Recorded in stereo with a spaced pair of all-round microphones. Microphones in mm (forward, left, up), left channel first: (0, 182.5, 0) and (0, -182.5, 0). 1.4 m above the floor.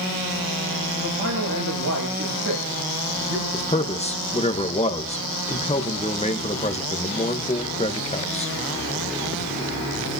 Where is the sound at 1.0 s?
70° right (ahead or behind), 6 m.